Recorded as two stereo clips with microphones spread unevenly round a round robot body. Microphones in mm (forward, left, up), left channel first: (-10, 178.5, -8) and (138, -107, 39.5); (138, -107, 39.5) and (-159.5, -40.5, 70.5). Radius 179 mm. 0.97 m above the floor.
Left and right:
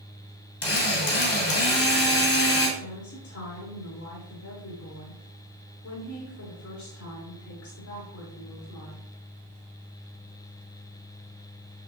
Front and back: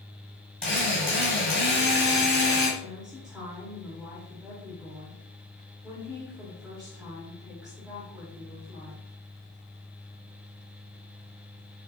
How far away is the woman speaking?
About 3 m.